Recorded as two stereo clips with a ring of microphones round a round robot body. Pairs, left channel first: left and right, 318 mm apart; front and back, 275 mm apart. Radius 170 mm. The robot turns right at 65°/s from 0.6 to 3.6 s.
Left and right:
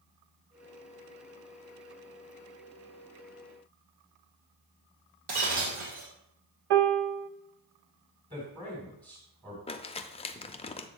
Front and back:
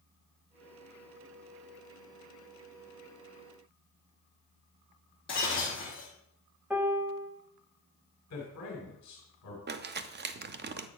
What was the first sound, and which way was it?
Breaking glass, 75° right.